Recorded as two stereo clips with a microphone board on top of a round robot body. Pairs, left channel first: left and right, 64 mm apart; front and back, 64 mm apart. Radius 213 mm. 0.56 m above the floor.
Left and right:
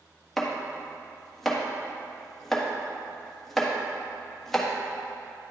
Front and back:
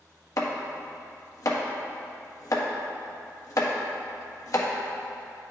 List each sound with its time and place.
0.4 s chopping: 5° left, 1.4 m